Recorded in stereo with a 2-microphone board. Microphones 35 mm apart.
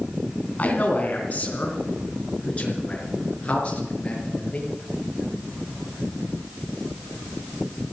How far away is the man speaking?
About 3 m.